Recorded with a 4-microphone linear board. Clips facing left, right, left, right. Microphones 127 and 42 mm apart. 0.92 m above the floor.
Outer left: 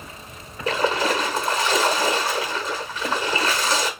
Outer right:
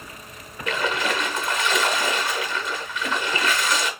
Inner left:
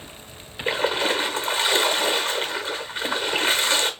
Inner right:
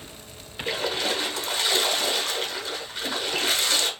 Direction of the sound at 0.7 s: 35° left (ahead or behind).